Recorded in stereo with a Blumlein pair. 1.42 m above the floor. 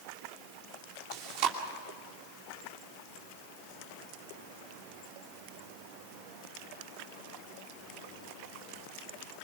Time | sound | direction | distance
1.1 | chewing | 40° right | 2.5 m